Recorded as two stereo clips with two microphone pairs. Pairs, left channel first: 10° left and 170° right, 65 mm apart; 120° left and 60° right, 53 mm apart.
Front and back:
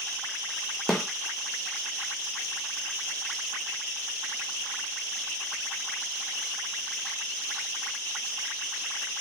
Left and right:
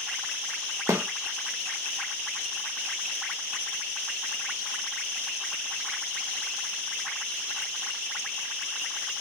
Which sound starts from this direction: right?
A snare drum, at 0.9 s.